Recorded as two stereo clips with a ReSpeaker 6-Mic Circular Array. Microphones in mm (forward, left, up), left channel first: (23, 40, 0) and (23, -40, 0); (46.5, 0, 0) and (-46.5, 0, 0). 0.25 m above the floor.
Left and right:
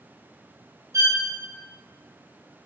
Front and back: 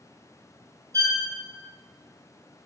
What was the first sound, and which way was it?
A violin, 130° right.